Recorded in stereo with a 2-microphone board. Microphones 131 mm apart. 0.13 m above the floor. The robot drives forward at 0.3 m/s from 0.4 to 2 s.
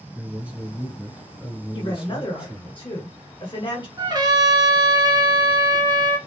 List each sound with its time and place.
0.1 s a man speaking: 10° right (ahead or behind), 1.3 m
1.7 s a woman speaking: 40° left (ahead or behind), 1.4 m
4.0 s a trumpet: 35° right (ahead or behind), 1.0 m